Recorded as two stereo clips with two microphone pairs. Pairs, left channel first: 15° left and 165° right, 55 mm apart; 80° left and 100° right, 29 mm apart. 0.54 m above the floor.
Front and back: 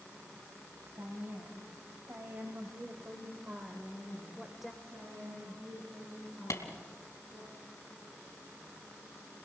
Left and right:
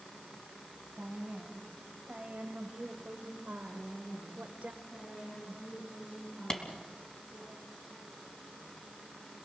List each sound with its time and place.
1.0 s a woman speaking: 140° right, 3 m; by 4.7 s 75° right, 1.5 m
3.7 s a woman speaking: 150° left, 8 m
6.5 s a clap: 10° left, 3 m